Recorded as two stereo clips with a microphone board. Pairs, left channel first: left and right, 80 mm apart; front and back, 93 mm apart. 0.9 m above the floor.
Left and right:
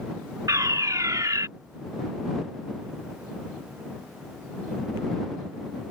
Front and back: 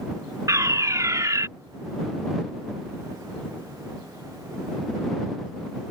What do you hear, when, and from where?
0.5 s a fire alarm: 130° right